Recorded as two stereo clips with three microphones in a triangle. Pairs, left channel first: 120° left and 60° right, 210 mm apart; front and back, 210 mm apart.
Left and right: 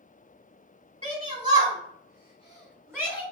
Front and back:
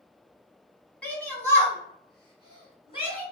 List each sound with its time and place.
1.0 s a shout: 80° right, 1.3 m; by 3.2 s 40° left, 1.4 m